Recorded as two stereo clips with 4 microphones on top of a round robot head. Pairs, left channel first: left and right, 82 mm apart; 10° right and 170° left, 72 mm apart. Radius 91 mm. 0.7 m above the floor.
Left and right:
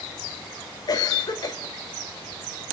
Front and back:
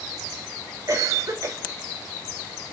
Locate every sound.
0.9 s a cough: 125° left, 3 m